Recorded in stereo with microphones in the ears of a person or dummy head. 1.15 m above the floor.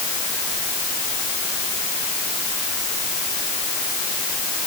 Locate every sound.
Only background noise.